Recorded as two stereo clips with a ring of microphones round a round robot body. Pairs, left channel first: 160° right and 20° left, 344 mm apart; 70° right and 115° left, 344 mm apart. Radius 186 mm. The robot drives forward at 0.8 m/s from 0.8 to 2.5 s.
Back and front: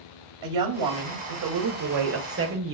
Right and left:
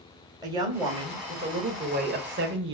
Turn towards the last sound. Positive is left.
turn(degrees=65)